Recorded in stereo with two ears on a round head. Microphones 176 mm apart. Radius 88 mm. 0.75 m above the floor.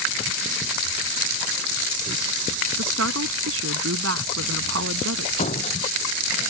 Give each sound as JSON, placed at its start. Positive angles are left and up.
{"t": 2.8, "sound": "a woman speaking", "side_deg": -75}
{"t": 5.4, "sound": "a door slam", "side_deg": 35}